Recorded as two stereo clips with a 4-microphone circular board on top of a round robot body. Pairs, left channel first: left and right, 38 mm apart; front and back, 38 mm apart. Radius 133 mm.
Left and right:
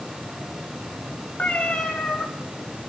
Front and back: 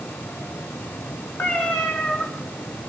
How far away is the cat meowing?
About 5.5 m.